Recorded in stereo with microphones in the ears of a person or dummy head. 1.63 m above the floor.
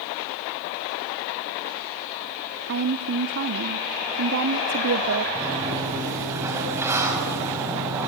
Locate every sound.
2.7 s a woman speaking: 50° right (ahead or behind), 0.8 m
5.3 s a sliding door: 15° right (ahead or behind), 5.5 m